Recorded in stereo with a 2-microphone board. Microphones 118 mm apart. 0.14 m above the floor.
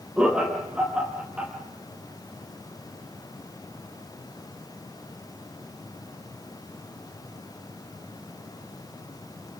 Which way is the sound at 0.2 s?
10° right (ahead or behind).